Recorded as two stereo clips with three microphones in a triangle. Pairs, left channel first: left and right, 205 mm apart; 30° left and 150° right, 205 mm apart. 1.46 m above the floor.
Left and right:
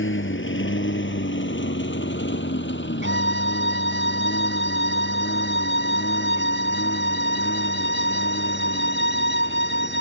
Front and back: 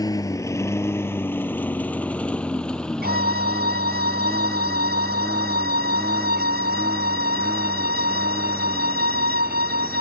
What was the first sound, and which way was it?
A lawn mower, 100° left.